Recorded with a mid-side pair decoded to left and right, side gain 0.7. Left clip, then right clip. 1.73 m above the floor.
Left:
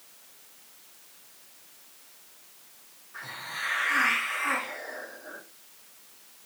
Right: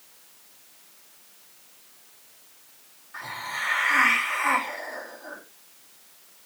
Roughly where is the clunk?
No clunk in this recording.